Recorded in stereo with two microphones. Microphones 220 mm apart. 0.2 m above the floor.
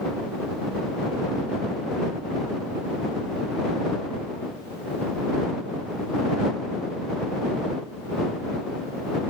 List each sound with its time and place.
Only background noise.